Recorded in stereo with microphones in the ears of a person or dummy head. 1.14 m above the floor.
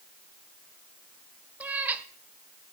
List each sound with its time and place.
1.6 s a cat meowing: 10° right (ahead or behind), 0.9 m